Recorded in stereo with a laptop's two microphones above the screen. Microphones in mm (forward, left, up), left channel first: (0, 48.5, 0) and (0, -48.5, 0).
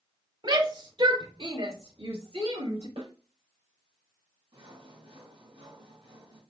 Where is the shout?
55° right (ahead or behind), 3.5 m; by 2.9 s 85° right, 6.5 m.